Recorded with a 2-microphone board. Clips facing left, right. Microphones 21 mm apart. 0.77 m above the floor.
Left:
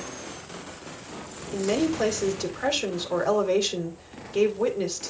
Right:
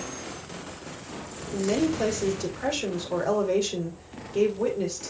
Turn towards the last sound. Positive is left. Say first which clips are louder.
# even
turn(degrees=25)  # may be behind; listen again after turning